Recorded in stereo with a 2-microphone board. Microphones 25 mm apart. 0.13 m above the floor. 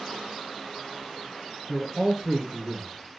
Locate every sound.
1.7 s a man speaking: 25° right (ahead or behind), 1.2 m; by 3.2 s 5° right (ahead or behind), 1.8 m